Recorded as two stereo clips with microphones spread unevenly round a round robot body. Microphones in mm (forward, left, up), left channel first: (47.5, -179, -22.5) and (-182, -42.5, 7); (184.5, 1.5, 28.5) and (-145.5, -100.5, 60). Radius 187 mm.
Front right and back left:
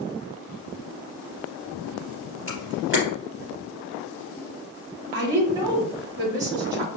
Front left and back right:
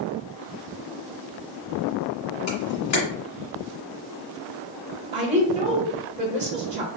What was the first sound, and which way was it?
A camera shutter, 60° left.